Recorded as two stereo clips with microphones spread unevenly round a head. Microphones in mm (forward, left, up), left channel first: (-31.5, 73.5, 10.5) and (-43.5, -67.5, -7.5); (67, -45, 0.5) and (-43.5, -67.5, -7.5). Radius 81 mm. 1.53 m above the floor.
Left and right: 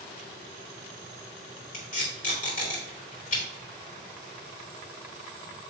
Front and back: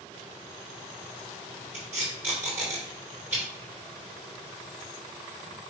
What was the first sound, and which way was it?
Tape being pulled, 110° left.